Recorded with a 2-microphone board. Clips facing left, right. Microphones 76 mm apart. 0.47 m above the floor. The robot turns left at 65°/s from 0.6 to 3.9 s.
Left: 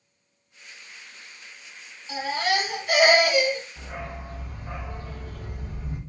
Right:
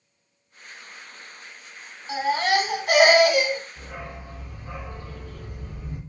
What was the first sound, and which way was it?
A baby crying, 40° right.